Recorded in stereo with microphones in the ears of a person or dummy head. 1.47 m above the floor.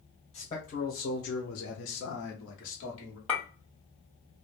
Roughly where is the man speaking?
Left.